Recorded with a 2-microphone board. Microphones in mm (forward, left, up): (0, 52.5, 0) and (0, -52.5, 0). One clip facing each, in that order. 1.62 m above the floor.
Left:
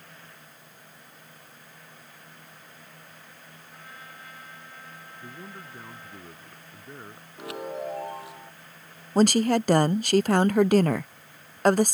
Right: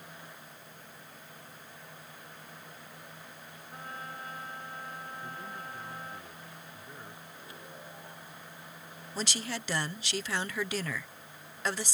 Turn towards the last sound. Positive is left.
turn(degrees=50)  # may be behind; listen again after turning